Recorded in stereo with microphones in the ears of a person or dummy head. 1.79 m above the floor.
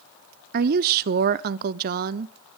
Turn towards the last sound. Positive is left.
turn(degrees=-50)  # may be behind; listen again after turning